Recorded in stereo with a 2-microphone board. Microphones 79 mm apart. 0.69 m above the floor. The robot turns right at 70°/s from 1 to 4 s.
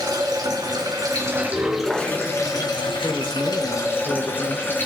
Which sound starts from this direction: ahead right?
Running water, at 0.0 s.